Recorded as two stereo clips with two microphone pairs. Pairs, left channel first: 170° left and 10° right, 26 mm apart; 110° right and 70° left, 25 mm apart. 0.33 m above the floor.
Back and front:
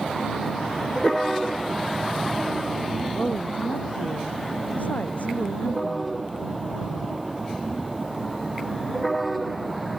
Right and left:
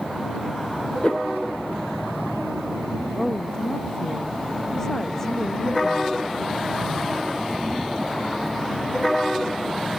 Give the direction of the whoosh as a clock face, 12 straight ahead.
5 o'clock.